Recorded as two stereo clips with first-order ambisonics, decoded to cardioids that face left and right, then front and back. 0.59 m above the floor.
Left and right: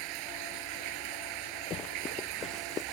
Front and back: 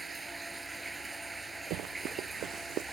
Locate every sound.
0.0 s running water: 100° right
1.7 s running footsteps: 145° left